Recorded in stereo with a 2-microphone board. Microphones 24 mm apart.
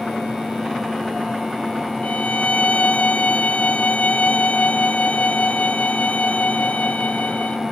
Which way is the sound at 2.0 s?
65° left (ahead or behind).